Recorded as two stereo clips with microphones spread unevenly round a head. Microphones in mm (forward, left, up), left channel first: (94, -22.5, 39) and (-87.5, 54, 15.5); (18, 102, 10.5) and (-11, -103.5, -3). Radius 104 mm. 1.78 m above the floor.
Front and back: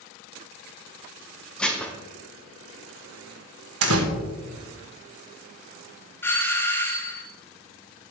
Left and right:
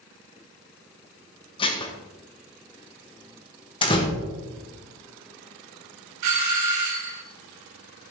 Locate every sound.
1.6 s dishes clattering: 50° left, 0.9 m
3.8 s a door slam: 145° left, 1.3 m
6.2 s a doorbell: 100° right, 0.7 m